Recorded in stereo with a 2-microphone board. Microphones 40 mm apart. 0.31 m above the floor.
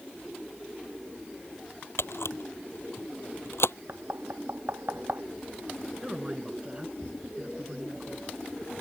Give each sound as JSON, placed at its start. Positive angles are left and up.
{"t": 2.0, "sound": "a camera shutter", "side_deg": 85}
{"t": 3.9, "sound": "knocking", "side_deg": -70}
{"t": 6.0, "sound": "a man speaking", "side_deg": -20}